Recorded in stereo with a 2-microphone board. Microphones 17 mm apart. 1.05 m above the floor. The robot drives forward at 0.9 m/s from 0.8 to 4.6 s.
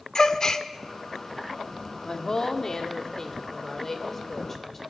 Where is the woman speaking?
40° left (ahead or behind), 1.8 m; by 4.8 s 20° left (ahead or behind), 4 m.